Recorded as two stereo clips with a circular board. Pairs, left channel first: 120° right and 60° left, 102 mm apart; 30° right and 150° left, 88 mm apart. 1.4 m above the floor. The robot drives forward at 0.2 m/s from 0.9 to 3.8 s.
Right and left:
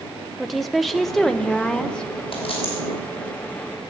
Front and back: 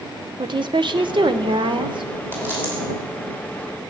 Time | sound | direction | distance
0.4 | a woman speaking | 150° left | 0.8 m
2.3 | a dropped coin | 145° right | 5 m